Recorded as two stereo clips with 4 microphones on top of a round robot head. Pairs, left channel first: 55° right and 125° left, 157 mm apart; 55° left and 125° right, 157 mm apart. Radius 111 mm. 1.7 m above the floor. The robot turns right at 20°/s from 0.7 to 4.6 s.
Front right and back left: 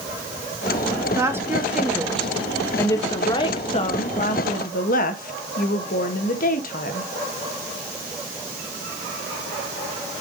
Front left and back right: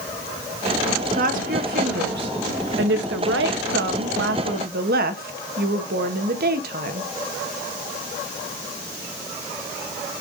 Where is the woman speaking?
165° right, 1.2 m; by 7.1 s 95° right, 1.2 m.